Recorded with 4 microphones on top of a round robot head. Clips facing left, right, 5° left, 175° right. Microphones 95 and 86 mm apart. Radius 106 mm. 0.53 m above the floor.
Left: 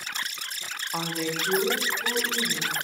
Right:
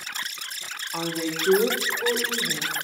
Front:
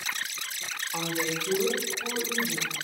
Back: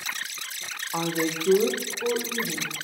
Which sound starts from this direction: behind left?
A woman speaking, at 0.9 s.